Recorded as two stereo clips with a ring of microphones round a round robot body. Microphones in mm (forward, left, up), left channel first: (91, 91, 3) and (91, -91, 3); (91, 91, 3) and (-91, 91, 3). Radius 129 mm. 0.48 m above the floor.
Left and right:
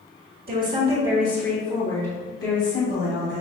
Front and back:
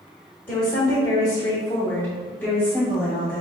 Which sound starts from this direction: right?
A woman speaking, at 0.5 s.